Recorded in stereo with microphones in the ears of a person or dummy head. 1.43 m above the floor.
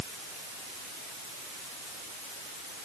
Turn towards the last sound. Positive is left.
No sound to turn to.